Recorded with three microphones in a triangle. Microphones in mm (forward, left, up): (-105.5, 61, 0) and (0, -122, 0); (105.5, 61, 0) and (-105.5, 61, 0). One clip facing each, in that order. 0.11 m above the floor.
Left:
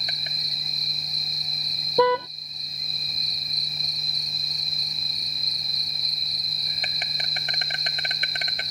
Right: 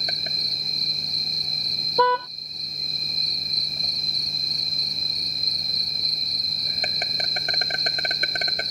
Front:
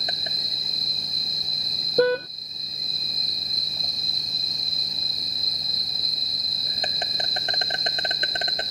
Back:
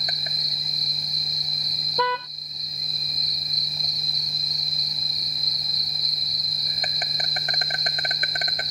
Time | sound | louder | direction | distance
0.0 | an insect | right 5 dB, front 2 dB | 55° right | ?
2.0 | a car horn | left 3 dB, front 8 dB | 45° left | ?